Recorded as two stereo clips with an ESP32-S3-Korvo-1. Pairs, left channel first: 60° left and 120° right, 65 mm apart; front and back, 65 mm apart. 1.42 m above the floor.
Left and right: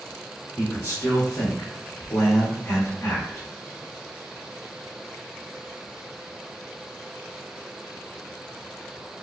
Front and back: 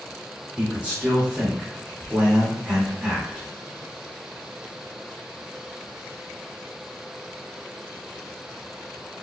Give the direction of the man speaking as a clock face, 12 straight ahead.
8 o'clock.